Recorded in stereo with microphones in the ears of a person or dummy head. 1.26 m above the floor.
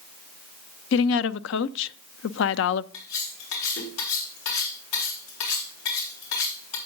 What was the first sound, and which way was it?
A woman speaking, 65° left (ahead or behind).